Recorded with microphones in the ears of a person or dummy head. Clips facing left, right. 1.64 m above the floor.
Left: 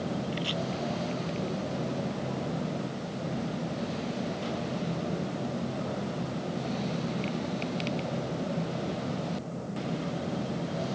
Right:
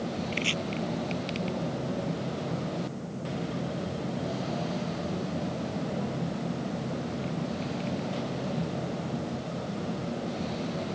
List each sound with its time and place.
0.3 s chopping: 30° right (ahead or behind)